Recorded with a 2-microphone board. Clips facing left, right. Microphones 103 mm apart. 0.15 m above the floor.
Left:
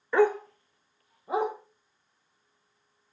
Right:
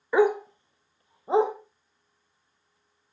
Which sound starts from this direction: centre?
A dog barking, at 0.1 s.